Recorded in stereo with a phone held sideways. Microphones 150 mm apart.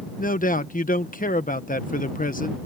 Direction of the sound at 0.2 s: 65° left (ahead or behind).